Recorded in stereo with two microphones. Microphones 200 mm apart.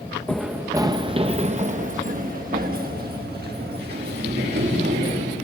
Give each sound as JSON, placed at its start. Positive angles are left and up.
{"t": 0.3, "sound": "running footsteps", "side_deg": 5, "distance_m": 0.9}